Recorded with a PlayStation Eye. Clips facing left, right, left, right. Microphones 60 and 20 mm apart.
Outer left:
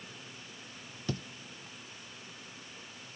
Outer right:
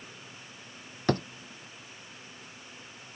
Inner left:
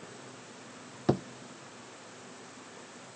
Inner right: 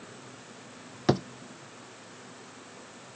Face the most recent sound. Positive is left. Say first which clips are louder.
# outer right 10 dB, inner right 3 dB
turn(degrees=-60)  # may be behind; listen again after turning